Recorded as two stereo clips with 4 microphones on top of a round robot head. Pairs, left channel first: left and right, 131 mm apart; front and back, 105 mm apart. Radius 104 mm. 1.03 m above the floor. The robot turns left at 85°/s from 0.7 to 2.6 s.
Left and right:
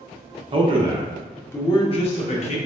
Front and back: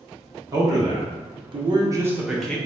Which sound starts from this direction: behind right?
A man speaking, at 0.5 s.